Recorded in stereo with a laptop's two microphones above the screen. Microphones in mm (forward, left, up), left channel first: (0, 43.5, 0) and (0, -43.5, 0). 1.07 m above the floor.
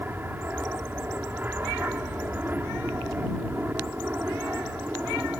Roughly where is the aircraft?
Right.